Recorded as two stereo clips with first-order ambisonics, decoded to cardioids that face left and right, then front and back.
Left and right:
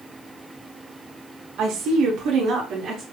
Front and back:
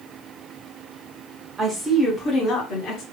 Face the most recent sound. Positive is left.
turn(degrees=-40)